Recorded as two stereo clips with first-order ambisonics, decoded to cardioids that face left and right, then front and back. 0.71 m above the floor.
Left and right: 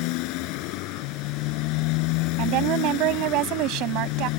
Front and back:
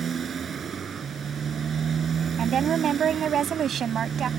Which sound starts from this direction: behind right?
A woman speaking, at 2.4 s.